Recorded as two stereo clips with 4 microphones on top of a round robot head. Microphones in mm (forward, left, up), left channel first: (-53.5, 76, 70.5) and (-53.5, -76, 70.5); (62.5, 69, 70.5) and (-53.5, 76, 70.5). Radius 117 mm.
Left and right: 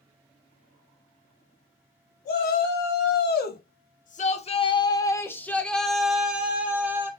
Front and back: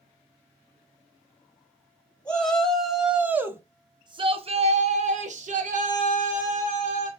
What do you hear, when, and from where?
2.2 s a shout: 75° left, 1.5 m; by 7.1 s 165° right, 1.9 m